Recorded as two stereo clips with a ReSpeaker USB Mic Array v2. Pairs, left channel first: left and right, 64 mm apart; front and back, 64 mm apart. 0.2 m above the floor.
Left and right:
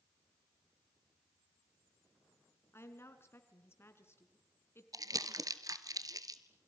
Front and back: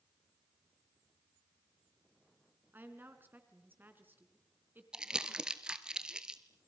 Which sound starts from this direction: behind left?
A woman speaking, at 2.7 s.